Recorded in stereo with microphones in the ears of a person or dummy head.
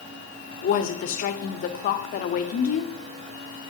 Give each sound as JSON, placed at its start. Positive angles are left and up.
{"t": 0.6, "sound": "a woman speaking", "side_deg": 50, "distance_m": 0.7}